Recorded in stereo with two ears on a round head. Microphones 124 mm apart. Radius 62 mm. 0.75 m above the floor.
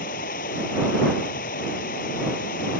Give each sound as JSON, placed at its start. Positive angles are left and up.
{"t": 0.0, "sound": "running water", "side_deg": 65}